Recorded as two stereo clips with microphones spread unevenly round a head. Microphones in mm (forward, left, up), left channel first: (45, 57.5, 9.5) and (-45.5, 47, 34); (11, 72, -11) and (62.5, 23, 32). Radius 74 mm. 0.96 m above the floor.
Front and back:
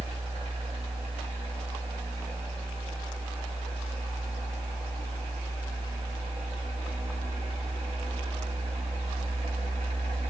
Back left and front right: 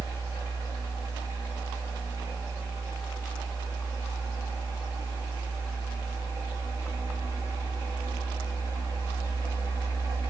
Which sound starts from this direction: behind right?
A fan, at 0.0 s.